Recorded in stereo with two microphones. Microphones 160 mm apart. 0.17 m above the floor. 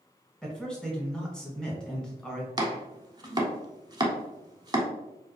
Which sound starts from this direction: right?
Chopping, at 2.6 s.